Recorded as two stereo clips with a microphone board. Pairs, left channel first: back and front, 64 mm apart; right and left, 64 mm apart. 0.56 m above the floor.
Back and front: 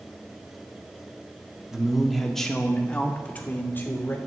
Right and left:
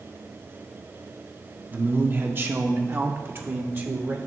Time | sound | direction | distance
1.7 | a man speaking | 70° left | 1.1 m